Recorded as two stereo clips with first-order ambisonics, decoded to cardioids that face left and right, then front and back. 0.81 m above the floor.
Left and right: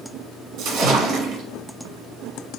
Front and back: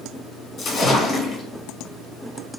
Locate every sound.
0.6 s a splash: 60° right, 1.0 m